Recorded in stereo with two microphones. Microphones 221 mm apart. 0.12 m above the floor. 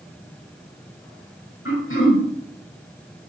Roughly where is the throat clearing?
Left.